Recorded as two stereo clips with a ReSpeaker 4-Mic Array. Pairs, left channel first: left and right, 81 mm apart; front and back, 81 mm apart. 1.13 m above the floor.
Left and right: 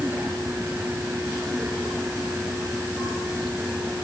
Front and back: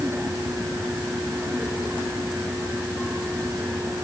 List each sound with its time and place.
Only background noise.